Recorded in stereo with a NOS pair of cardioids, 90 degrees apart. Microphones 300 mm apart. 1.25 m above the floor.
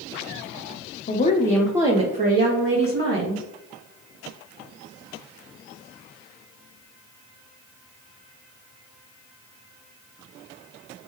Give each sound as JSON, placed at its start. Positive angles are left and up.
{"t": 1.1, "sound": "a woman speaking", "azimuth_deg": 35, "distance_m": 0.6}